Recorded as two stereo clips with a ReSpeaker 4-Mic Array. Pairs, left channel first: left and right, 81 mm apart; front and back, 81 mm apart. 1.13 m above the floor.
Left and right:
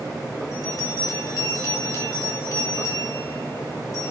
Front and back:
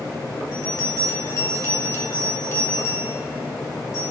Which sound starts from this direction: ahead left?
A bell, at 0.5 s.